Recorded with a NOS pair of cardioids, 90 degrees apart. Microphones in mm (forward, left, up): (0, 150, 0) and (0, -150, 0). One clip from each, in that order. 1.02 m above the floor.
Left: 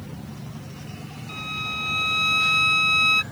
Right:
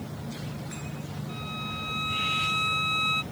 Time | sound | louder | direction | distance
1.3 | a violin | left 7 dB | 55° left | ?